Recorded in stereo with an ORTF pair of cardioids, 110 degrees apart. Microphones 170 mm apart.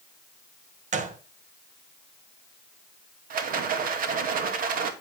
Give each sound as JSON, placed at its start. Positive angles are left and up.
{"t": 0.9, "sound": "a gunshot", "azimuth_deg": -45, "distance_m": 1.7}
{"t": 3.3, "sound": "a rattle", "azimuth_deg": -55, "distance_m": 2.0}